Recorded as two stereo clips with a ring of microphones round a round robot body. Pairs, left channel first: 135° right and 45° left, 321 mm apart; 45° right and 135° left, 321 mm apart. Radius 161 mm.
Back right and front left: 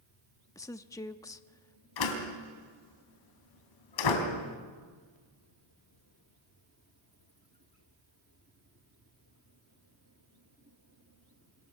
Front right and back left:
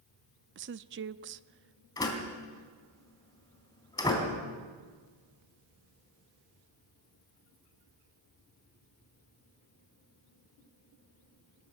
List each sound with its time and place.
0.6 s a woman speaking: 150° left, 0.6 m
2.0 s a door slam: 125° right, 3.5 m